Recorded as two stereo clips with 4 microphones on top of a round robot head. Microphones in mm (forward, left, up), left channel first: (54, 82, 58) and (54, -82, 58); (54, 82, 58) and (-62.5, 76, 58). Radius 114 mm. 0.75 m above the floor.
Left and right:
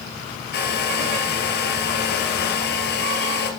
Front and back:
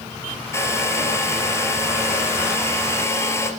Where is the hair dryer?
70° left, 3 m.